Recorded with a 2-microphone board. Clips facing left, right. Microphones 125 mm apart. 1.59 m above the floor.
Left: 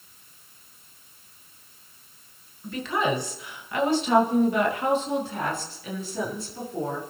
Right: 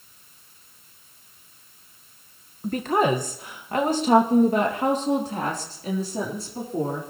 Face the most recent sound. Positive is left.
turn(degrees=-40)  # may be behind; listen again after turning